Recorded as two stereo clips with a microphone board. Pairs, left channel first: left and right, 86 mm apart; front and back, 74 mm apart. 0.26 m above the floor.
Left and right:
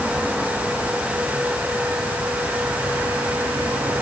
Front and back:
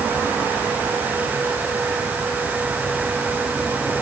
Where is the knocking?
No knocking in this recording.